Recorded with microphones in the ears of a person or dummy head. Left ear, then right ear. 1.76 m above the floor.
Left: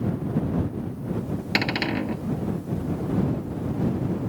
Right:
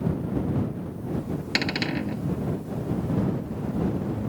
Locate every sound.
1.6 s a cupboard door: 15° left (ahead or behind)